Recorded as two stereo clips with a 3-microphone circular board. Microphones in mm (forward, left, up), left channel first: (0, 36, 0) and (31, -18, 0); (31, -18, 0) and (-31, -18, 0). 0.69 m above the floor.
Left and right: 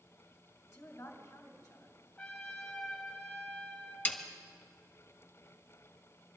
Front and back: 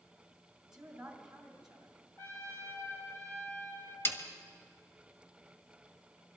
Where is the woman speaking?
95° left, 3 m.